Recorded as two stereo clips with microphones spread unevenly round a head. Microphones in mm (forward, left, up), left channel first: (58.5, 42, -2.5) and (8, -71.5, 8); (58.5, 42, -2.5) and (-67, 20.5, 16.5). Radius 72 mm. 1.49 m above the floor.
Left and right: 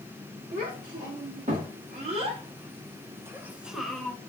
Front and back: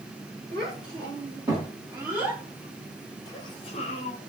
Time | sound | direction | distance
0.5 | a child speaking | 120° right | 2 m